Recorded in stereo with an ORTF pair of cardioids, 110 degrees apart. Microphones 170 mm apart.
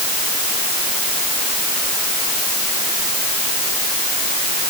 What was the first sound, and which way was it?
Only background noise.